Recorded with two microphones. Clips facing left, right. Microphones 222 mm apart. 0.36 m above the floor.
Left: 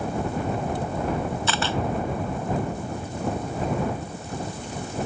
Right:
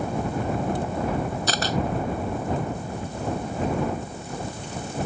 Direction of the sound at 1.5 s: 40° right (ahead or behind).